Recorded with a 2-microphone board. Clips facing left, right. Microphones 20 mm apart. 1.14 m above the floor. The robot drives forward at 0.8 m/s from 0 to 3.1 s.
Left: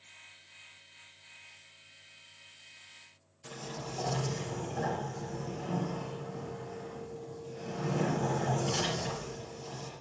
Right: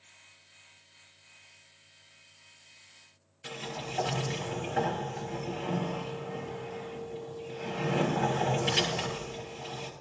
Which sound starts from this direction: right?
A sliding door, at 3.4 s.